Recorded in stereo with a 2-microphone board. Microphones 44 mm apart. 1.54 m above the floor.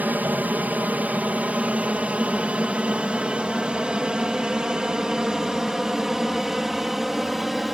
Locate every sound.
0.0 s an aircraft: 40° right (ahead or behind); by 7.7 s 5° right (ahead or behind)